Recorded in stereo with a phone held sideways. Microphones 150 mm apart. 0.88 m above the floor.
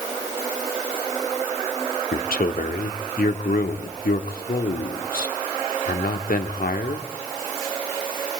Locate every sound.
2.1 s a man speaking: 80° left, 1.9 m